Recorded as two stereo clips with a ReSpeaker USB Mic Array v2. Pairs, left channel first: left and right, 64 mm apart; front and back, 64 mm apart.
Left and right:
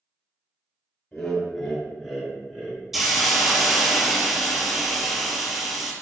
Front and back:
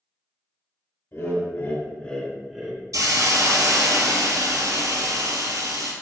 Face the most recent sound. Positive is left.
turn(degrees=-175)